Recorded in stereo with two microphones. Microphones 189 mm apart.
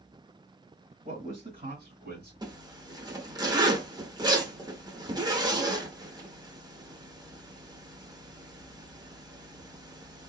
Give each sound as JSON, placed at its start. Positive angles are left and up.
{"t": 1.1, "sound": "a man speaking", "side_deg": -45, "distance_m": 1.7}
{"t": 2.4, "sound": "a zipper", "side_deg": -20, "distance_m": 0.9}